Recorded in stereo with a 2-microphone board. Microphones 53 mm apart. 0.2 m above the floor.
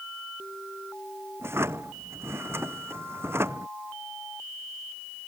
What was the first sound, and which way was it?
A drawer, 50° right (ahead or behind).